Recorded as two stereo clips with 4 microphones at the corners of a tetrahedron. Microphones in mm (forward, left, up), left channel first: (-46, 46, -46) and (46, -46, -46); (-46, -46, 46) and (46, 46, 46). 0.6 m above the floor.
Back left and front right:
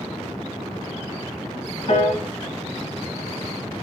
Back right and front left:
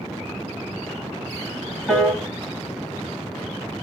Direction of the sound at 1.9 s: 130° left.